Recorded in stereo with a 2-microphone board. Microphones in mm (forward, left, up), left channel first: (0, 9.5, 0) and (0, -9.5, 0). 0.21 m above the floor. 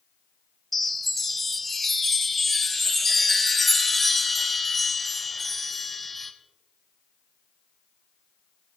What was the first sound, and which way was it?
A chime, 10° left (ahead or behind).